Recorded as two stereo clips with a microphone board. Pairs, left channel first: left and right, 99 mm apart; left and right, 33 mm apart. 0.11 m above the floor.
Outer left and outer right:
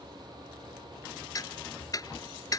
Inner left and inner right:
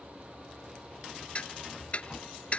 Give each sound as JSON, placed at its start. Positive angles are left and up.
{"t": 1.4, "sound": "ticking", "side_deg": 40}